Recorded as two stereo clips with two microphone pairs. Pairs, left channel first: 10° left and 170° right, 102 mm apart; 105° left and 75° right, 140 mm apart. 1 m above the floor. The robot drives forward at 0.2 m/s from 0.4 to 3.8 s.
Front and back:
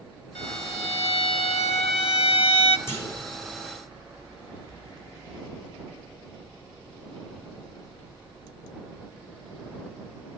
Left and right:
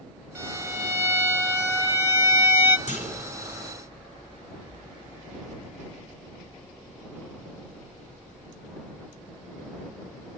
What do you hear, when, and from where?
0.3 s a violin: straight ahead, 1.2 m
2.9 s a clunk: 70° left, 3.5 m